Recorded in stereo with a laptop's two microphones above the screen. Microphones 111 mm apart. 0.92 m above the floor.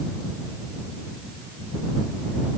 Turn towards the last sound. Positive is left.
No sound to turn to.